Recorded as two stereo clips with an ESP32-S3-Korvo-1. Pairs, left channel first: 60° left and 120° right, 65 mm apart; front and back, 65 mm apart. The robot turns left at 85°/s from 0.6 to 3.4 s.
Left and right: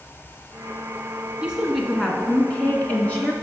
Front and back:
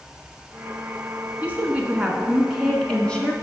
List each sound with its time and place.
1.4 s a woman speaking: 170° right, 1.2 m; by 3.3 s 25° left, 1.2 m